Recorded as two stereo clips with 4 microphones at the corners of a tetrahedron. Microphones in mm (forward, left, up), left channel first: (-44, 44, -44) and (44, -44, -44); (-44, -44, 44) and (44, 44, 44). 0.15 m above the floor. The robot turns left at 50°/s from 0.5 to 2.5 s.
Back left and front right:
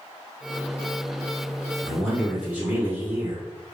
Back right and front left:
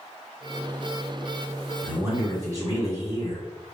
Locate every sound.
1.8 s a man speaking: 55° left, 1.4 m; by 3.4 s 20° left, 1.4 m